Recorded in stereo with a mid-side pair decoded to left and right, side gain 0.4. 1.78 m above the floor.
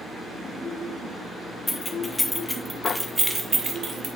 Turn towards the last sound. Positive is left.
turn(degrees=-60)